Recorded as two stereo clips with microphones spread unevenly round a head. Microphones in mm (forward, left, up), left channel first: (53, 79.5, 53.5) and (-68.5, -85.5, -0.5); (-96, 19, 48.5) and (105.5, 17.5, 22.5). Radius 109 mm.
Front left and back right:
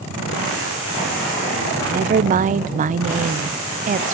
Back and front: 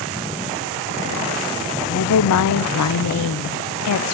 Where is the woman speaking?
175° left, 0.6 m.